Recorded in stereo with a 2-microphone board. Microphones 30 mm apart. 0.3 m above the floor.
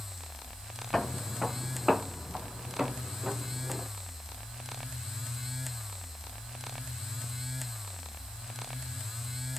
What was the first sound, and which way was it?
Footsteps, 10° left (ahead or behind).